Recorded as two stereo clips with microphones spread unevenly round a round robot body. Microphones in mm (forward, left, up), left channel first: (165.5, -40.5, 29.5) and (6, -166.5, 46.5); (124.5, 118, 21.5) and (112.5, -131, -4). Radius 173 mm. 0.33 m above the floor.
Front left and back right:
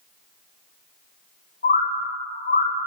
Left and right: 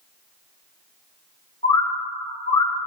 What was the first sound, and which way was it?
A bird, 20° left.